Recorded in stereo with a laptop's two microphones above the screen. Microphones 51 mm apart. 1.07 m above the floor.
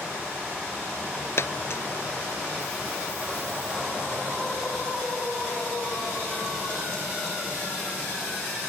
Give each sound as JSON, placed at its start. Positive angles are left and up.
{"t": 1.4, "sound": "a dropped coin", "side_deg": 55}